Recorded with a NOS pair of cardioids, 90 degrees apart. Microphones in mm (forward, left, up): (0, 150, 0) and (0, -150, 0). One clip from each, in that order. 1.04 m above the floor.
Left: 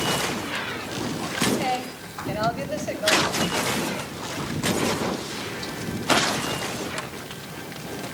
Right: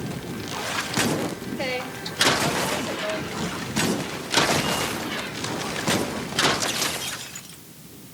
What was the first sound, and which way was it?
A woman speaking, 30° right.